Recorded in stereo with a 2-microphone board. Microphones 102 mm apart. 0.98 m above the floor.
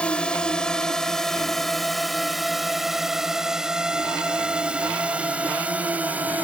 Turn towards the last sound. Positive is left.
turn(degrees=-15)  # may be behind; listen again after turning